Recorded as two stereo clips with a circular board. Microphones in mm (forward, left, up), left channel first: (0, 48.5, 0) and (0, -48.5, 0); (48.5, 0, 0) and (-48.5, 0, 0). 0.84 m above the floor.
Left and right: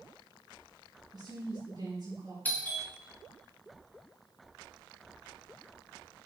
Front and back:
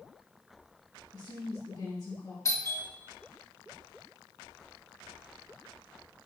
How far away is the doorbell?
About 1.7 m.